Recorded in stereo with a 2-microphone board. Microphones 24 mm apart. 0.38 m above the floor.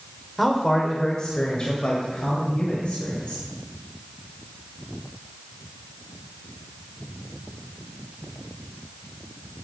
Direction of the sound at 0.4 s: 5° left (ahead or behind).